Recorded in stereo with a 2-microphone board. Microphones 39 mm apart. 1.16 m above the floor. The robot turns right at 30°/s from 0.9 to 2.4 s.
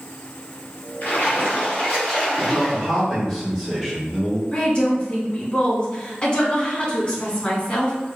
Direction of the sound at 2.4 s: 5° left (ahead or behind).